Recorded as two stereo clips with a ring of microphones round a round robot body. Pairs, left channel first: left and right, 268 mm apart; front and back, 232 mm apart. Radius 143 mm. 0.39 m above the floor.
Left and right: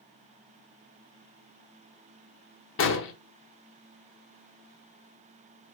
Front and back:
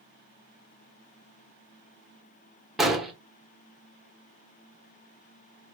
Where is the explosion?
90° left, 1.1 m.